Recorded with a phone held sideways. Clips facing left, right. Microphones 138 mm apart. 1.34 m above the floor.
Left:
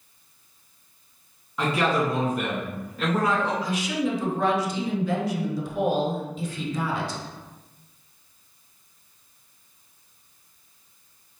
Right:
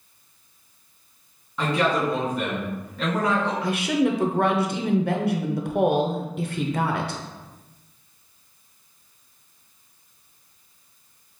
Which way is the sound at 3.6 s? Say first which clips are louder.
Right 4 dB; 60° right (ahead or behind).